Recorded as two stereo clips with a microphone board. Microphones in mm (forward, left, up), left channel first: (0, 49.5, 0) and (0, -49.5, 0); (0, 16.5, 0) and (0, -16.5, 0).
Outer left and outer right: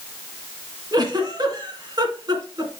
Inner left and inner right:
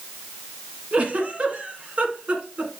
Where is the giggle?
40° right (ahead or behind), 1.8 m.